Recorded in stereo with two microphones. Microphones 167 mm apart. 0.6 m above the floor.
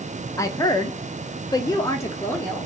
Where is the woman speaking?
20° left (ahead or behind), 0.8 m; by 2.7 s 10° left (ahead or behind), 1.1 m.